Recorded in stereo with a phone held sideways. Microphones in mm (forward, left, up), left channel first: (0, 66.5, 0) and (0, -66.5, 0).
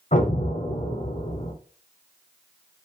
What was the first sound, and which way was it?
An explosion, 60° left (ahead or behind).